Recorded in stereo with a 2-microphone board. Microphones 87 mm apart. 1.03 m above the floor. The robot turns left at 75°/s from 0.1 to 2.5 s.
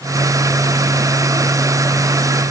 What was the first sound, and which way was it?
Only background noise.